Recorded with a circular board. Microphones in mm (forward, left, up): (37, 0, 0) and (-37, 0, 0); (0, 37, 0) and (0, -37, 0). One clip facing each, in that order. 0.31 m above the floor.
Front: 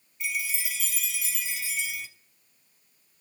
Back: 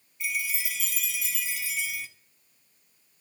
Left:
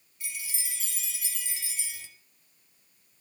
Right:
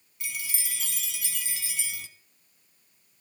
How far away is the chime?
About 0.9 m.